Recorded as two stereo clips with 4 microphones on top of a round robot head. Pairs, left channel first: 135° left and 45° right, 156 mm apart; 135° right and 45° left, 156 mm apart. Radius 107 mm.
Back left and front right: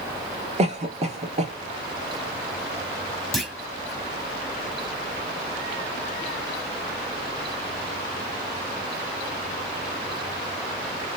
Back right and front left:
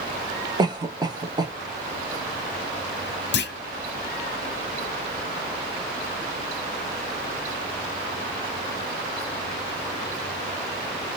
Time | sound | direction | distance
0.6 | a cough | 10° right | 1.1 m
3.3 | a clunk | 140° right | 0.7 m